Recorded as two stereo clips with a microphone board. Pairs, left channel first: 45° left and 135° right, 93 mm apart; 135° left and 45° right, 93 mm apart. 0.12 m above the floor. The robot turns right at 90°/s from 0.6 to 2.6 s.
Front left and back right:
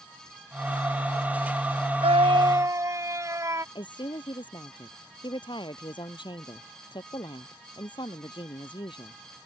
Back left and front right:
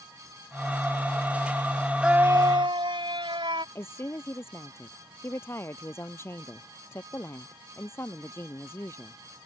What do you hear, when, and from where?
2.0 s a scream: 130° right; by 3.6 s 75° right
3.8 s a woman speaking: 75° left